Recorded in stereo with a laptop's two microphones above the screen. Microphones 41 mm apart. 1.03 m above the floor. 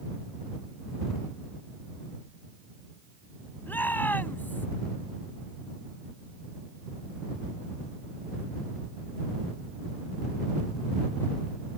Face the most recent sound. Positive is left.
turn(degrees=50)  # may be behind; listen again after turning